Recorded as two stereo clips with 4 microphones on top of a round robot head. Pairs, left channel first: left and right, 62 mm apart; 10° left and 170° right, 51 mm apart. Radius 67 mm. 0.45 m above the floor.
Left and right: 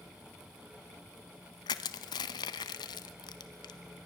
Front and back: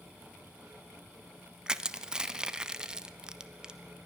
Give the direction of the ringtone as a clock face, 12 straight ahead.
No ringtone in this recording.